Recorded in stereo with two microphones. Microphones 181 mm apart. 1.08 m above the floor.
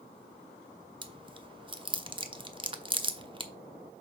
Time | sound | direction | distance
1.0 | chewing | 30° right (ahead or behind) | 0.7 m